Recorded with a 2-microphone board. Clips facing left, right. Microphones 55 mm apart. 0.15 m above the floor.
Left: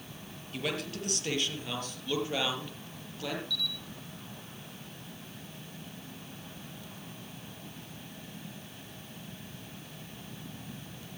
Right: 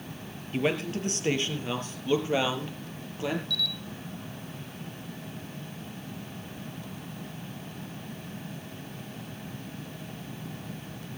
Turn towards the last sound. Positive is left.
turn(degrees=-55)  # may be behind; listen again after turning